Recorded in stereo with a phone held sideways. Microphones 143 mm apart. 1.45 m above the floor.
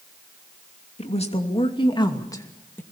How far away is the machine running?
I don't hear a machine running.